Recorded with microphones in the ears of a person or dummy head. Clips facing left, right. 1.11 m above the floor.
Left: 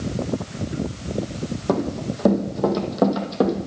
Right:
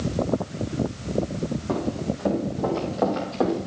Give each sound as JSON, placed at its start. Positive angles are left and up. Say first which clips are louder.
{"t": 1.7, "sound": "running footsteps", "louder": "left 5 dB", "side_deg": 65, "distance_m": 3.0}